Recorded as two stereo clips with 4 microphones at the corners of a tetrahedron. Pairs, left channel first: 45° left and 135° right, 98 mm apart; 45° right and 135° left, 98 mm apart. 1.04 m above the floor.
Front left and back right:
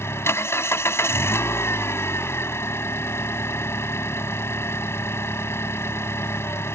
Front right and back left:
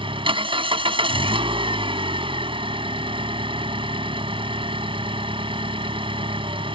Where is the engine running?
110° left.